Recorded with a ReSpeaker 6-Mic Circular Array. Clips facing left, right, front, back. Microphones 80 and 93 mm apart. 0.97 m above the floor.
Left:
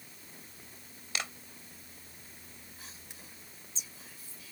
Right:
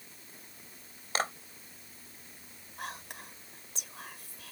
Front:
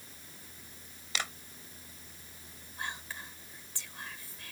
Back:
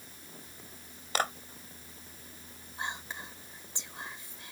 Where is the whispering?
110° right.